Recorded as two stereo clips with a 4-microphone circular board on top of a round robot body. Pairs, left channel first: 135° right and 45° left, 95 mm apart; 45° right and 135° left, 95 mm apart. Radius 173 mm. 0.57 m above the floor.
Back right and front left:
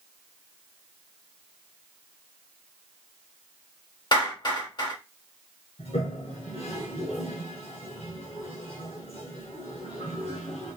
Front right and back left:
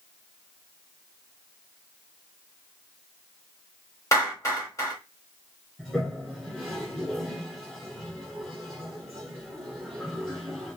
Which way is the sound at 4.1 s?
100° right.